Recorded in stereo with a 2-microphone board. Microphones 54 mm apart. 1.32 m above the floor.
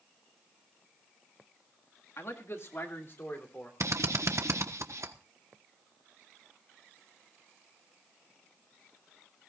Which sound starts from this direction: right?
A drill, at 3.8 s.